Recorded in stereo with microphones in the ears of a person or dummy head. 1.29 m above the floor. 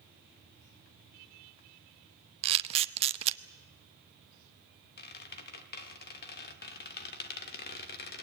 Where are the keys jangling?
No keys jangling in this recording.